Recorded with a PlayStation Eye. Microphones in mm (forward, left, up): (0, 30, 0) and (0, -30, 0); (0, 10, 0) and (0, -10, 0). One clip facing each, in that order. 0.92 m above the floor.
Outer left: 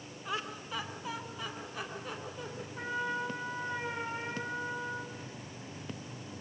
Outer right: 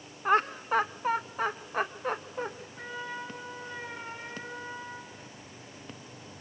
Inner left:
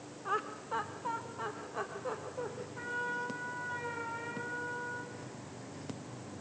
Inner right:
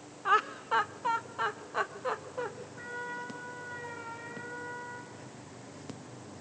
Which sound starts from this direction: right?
Laughter, at 0.2 s.